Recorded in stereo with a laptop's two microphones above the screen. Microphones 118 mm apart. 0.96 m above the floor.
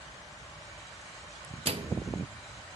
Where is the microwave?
55° right (ahead or behind), 0.8 m.